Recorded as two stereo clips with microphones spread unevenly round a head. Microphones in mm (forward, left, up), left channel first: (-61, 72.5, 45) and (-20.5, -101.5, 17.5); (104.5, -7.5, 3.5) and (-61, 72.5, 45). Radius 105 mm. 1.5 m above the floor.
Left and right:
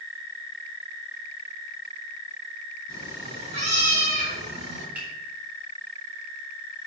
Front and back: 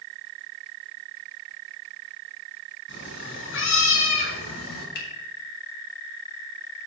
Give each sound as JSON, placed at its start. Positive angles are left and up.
{"t": 2.9, "sound": "a cat meowing", "azimuth_deg": 0, "distance_m": 3.5}
{"t": 5.0, "sound": "a finger snap", "azimuth_deg": 10, "distance_m": 2.5}